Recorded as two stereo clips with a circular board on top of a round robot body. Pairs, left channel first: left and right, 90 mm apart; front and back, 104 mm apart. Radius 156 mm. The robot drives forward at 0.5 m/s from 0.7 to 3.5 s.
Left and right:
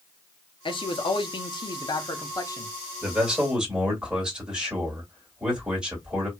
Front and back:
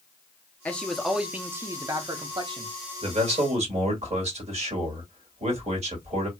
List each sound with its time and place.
0.7 s a man speaking: 75° left, 0.8 m; by 2.7 s 145° left, 1.1 m
3.0 s a man speaking: 170° right, 1.9 m